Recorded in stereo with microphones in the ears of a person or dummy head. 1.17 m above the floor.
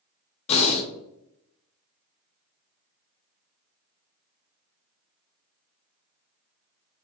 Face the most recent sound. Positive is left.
turn(degrees=30)  # may be behind; listen again after turning